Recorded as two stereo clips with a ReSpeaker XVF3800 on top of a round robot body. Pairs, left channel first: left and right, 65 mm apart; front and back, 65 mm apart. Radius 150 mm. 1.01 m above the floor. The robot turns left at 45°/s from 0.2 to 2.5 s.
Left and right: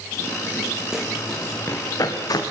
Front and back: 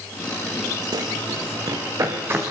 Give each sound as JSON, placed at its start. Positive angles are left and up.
{"t": 0.9, "sound": "running footsteps", "azimuth_deg": -170, "distance_m": 3.5}